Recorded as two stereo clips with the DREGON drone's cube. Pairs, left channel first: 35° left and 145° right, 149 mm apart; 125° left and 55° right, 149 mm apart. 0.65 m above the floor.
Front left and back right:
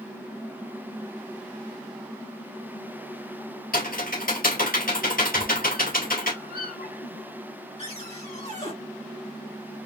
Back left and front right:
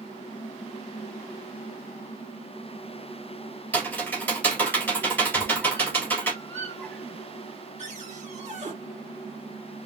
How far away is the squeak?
About 3.5 m.